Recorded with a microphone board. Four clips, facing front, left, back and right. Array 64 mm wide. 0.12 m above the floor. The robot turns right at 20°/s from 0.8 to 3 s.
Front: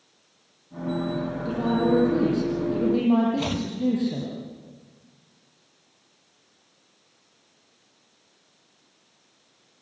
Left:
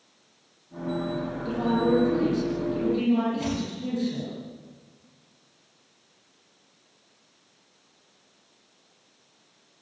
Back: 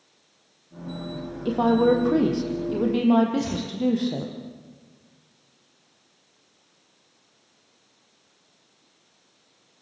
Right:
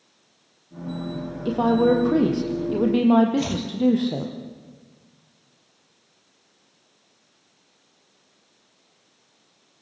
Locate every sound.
1.4 s a woman speaking: 145° right, 4.5 m; by 4.3 s 110° right, 4.5 m
3.4 s chopping: 15° right, 2.5 m